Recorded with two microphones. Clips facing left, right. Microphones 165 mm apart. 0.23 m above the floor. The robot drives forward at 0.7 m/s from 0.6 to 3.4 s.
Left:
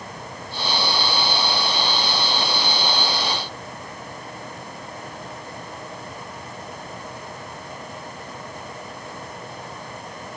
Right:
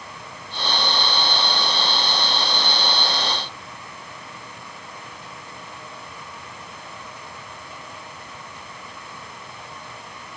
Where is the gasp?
I don't hear a gasp.